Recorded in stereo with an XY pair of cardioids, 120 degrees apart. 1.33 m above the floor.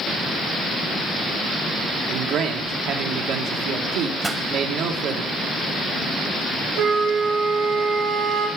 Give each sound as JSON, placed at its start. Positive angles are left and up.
{"t": 2.1, "sound": "a man speaking", "azimuth_deg": -70, "distance_m": 1.7}
{"t": 4.2, "sound": "a pop", "azimuth_deg": -15, "distance_m": 1.2}
{"t": 6.8, "sound": "a flute", "azimuth_deg": -70, "distance_m": 3.5}